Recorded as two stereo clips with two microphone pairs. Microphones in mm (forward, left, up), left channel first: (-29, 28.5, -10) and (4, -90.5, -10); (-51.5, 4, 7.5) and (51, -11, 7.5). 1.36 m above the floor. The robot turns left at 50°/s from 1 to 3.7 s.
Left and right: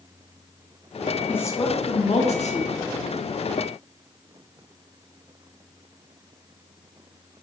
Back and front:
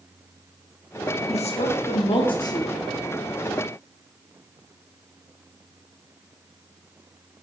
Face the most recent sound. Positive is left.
turn(degrees=65)